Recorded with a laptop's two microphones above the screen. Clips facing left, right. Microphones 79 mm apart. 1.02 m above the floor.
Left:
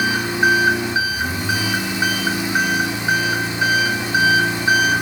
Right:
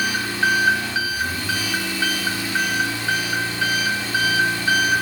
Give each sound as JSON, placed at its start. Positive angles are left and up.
{"t": 0.0, "sound": "an engine running", "side_deg": 20, "distance_m": 1.1}